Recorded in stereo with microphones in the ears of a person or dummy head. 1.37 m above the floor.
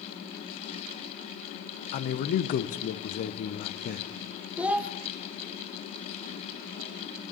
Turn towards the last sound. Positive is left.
turn(degrees=-5)  # may be behind; listen again after turning